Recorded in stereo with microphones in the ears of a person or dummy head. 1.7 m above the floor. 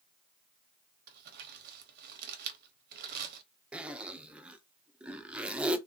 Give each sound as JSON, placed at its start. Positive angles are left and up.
{"t": 1.1, "sound": "crumpling", "side_deg": -60, "distance_m": 0.8}
{"t": 3.7, "sound": "a zipper", "side_deg": -10, "distance_m": 0.5}